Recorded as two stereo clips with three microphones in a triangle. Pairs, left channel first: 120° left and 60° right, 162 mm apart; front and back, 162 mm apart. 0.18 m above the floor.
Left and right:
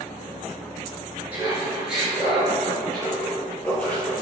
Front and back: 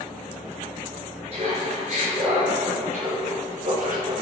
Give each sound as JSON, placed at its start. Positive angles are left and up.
{"t": 1.3, "sound": "laughter", "azimuth_deg": -140, "distance_m": 3.5}